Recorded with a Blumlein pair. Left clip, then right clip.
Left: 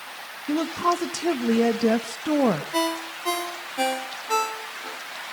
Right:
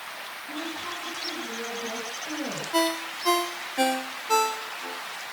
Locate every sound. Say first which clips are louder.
0.5 s a woman speaking: left 12 dB; 50° left, 1.7 m
2.7 s a ringtone: even; 5° right, 1.6 m